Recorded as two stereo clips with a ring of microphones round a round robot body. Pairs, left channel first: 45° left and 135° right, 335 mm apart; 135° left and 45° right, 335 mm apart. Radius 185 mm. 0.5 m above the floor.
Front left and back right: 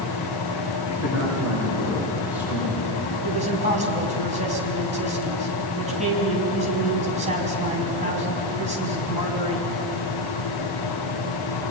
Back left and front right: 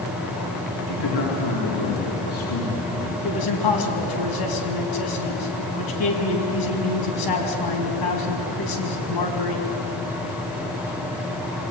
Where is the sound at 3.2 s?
155° left, 5 m.